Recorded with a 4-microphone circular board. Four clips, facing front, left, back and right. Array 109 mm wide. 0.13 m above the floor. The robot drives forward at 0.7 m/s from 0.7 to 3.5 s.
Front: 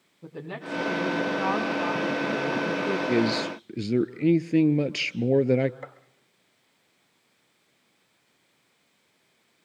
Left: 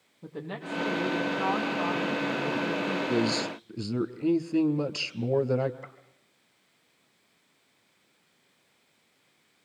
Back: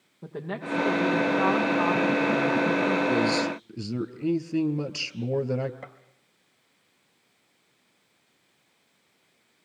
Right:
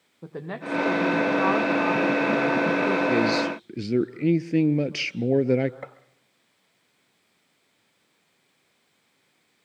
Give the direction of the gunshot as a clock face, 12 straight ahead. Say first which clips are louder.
Right 7 dB, front 2 dB; 3 o'clock.